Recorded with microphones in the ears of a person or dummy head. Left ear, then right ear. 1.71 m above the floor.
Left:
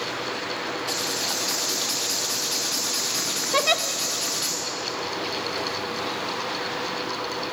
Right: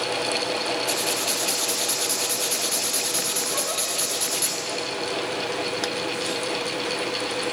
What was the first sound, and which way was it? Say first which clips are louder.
Writing: right 2 dB; 15° right (ahead or behind).